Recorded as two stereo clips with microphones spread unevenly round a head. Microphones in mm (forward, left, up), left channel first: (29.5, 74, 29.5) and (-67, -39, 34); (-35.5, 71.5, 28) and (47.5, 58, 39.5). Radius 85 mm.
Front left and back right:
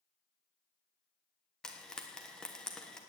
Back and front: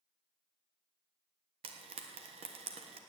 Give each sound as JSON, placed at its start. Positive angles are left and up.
{"t": 1.6, "sound": "frying", "azimuth_deg": -35, "distance_m": 1.1}